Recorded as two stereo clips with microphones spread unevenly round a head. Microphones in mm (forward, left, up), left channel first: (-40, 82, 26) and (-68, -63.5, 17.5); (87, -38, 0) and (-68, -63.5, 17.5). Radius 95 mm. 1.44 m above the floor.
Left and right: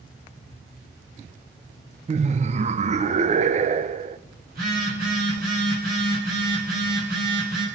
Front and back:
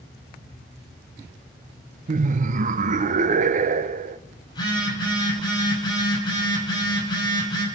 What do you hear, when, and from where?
2.1 s laughter: 140° right, 0.7 m
4.5 s a phone buzzing: 55° right, 6 m